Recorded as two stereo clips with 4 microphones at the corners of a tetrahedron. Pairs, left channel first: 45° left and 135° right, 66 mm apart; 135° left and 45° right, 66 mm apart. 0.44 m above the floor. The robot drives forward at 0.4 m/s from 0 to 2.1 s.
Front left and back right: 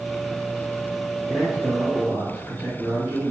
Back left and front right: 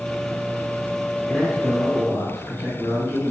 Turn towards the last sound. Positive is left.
turn(degrees=170)